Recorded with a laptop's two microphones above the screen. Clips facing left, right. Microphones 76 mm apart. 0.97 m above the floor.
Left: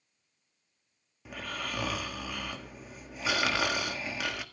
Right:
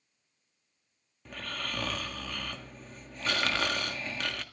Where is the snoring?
10° left (ahead or behind), 1.6 m.